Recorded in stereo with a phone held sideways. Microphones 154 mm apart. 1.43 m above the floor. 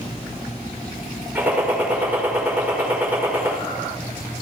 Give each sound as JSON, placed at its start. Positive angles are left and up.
{"t": 1.4, "sound": "a gunshot", "side_deg": -10, "distance_m": 5.5}